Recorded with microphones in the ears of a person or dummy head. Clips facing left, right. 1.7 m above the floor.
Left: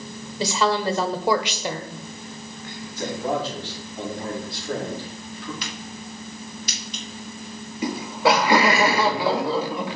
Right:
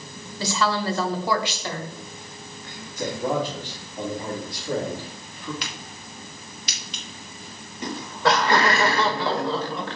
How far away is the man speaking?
About 3.5 m.